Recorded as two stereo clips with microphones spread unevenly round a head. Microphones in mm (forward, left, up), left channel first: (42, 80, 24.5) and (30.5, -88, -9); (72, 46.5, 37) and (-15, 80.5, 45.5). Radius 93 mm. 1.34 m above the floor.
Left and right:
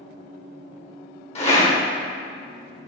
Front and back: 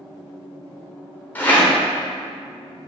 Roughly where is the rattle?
Ahead left.